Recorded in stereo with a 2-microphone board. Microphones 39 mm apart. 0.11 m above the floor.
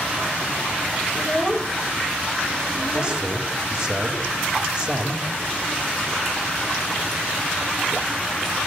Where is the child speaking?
5° right (ahead or behind), 1.4 m; by 3.3 s 5° left (ahead or behind), 2.5 m.